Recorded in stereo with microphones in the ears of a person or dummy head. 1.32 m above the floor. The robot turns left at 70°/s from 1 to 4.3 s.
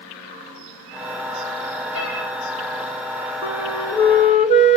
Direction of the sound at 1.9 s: 70° right (ahead or behind).